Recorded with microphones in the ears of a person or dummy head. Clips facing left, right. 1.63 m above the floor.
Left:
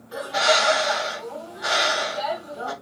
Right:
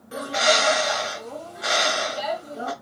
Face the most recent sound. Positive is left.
turn(degrees=-40)  # may be behind; listen again after turning